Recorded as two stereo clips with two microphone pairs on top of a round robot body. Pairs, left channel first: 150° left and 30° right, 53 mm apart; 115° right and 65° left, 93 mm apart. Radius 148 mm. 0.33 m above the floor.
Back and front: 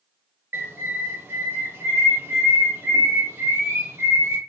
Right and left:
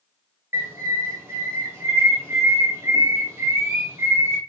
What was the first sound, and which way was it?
A bird, 5° left.